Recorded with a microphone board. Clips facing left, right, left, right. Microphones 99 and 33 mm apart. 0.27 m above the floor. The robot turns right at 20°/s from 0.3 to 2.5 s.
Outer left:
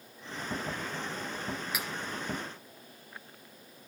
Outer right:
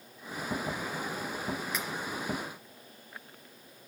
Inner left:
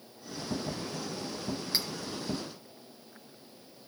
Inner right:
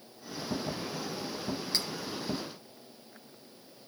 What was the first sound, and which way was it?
Cutlery clinking, 10° left (ahead or behind).